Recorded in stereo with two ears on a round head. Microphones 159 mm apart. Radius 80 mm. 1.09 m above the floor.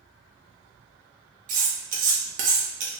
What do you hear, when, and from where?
1.5 s cutlery clinking: 45° right (ahead or behind), 0.8 m